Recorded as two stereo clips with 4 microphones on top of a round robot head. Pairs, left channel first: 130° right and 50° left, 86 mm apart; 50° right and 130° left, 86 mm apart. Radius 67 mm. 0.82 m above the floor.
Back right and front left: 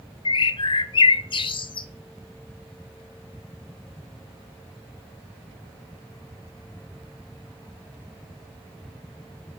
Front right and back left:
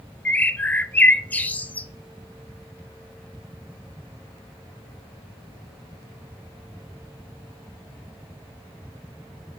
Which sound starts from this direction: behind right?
A bird, at 0.2 s.